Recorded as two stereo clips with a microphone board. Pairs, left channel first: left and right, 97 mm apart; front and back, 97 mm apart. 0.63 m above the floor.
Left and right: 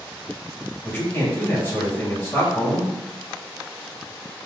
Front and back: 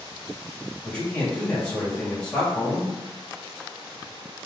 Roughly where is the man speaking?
Ahead left.